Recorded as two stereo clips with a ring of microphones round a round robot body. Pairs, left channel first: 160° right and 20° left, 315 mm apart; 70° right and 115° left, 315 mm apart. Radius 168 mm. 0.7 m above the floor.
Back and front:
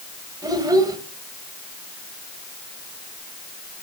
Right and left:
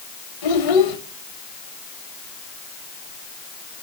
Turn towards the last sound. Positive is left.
turn(degrees=-55)